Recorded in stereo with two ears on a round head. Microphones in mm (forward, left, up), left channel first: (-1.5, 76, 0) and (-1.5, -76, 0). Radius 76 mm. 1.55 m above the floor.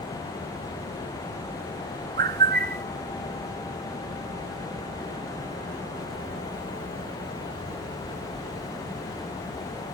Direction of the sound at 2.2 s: 55° right (ahead or behind).